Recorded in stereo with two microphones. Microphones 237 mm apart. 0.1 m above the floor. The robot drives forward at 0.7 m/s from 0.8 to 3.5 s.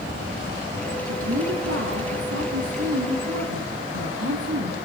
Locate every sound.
1.1 s a woman speaking: 65° right (ahead or behind), 5 m; by 4.8 s 70° right (ahead or behind), 5 m